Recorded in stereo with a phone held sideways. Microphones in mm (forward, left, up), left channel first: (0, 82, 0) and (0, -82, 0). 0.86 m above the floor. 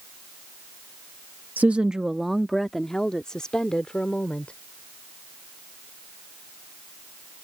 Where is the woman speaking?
10° right (ahead or behind); by 4.5 s 5° left (ahead or behind).